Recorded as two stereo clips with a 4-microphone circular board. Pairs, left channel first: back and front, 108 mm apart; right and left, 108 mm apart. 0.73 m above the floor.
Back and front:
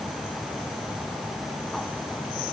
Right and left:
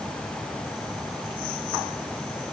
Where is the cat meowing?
No cat meowing in this recording.